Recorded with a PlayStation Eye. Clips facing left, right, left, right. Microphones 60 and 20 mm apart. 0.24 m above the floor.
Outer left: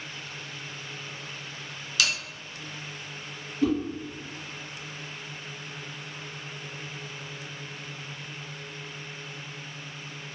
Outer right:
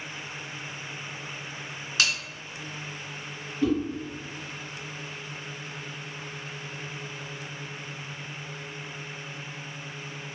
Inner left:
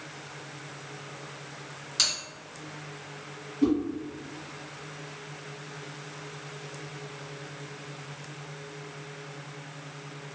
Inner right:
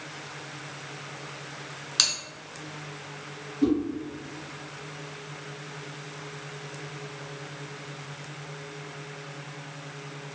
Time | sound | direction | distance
2.0 | a bell | 30° right (ahead or behind) | 2.0 m
3.6 | a whoosh | 10° left (ahead or behind) | 1.7 m